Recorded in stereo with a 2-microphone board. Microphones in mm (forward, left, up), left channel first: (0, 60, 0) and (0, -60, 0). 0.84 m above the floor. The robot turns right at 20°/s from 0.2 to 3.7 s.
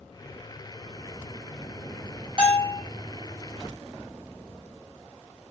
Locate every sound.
2.4 s a bell: 45° right (ahead or behind), 2.5 m; by 2.8 s 35° right (ahead or behind), 2.5 m